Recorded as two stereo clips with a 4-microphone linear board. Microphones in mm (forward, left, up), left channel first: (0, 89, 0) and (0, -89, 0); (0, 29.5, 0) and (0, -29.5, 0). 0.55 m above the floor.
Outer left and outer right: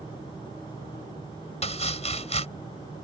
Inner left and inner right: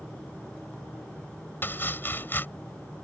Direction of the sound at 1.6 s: 35° left (ahead or behind).